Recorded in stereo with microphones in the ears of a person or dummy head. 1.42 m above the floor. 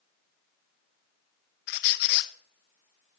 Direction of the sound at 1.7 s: 65° left (ahead or behind).